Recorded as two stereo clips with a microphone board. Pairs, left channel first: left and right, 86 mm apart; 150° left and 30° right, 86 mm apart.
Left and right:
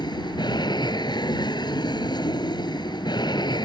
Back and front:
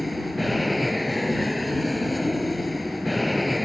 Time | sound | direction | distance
0.0 | an aircraft | 60° left | ?